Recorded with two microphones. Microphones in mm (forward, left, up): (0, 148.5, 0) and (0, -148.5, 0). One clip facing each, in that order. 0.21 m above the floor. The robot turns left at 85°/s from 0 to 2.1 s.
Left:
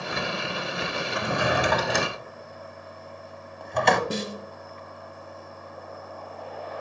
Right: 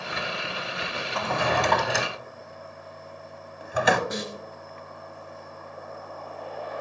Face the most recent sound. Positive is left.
turn(degrees=35)  # may be behind; listen again after turning